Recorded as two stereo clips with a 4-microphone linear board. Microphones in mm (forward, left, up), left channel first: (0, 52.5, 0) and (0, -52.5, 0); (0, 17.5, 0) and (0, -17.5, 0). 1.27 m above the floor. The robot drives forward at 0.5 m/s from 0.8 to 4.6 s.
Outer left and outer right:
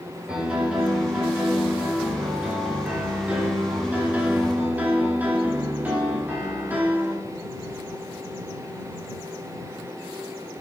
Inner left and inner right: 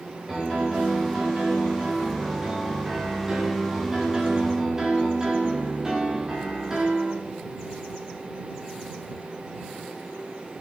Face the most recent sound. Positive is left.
turn(degrees=-20)  # may be behind; listen again after turning